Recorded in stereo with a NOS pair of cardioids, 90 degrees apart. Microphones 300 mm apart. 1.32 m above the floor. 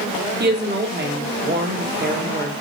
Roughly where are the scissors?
I don't hear scissors.